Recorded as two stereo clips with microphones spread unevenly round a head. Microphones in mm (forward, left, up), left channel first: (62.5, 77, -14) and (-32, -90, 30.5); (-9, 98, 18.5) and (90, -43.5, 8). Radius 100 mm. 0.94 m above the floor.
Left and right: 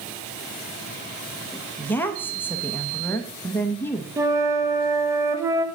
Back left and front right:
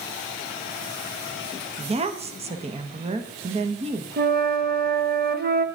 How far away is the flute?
About 1.1 m.